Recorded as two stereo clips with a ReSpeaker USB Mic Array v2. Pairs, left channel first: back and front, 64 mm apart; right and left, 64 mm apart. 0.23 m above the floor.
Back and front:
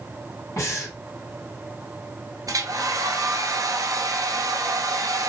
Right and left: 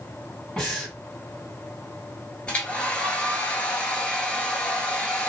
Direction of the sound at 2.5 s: 20° right.